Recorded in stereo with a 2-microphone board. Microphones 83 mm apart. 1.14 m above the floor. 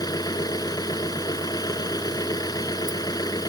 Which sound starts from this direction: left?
An engine running, at 0.0 s.